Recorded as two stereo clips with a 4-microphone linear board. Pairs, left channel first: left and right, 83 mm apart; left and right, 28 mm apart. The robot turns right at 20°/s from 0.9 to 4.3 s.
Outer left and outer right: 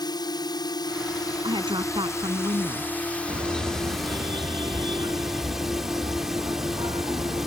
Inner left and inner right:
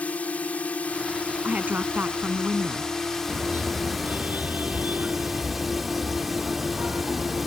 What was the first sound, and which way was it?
A drone, 115° left.